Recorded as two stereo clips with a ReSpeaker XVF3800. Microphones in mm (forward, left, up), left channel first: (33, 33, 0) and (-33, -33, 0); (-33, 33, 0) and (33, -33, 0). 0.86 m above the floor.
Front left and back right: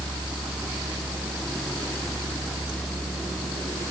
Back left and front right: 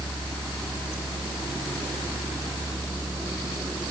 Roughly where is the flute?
I don't hear a flute.